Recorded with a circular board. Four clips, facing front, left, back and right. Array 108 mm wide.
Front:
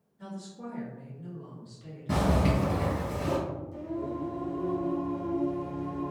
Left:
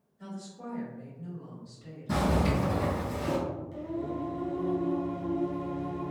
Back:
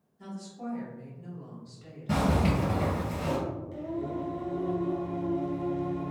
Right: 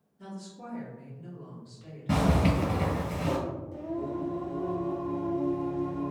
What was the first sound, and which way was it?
A woman speaking, 25° left.